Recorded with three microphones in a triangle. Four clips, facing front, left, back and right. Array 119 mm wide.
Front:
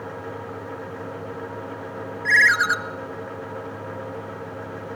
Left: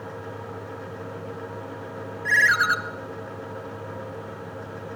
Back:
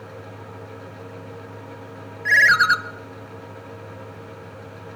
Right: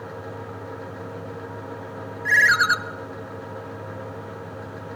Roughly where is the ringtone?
Behind.